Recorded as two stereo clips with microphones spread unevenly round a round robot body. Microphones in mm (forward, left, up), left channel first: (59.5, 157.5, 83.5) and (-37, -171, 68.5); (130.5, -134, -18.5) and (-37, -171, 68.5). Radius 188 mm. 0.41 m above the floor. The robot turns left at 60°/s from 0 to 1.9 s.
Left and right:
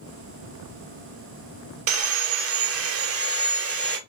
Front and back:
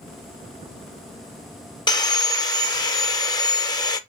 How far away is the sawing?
About 0.6 m.